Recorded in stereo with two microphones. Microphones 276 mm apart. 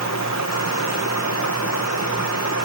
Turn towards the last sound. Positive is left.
turn(degrees=75)  # may be behind; listen again after turning